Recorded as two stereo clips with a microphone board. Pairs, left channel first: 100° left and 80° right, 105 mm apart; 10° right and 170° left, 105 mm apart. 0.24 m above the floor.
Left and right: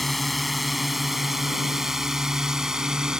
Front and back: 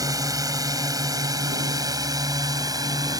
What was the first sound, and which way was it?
A drone, 170° right.